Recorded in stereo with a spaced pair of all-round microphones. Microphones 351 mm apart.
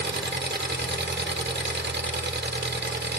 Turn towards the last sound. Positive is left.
turn(degrees=-30)  # may be behind; listen again after turning